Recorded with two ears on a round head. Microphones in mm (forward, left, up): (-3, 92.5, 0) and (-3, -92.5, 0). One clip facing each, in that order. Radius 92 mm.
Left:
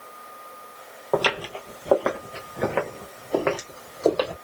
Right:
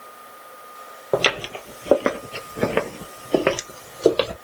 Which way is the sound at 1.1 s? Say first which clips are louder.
Right 2 dB; 25° right (ahead or behind).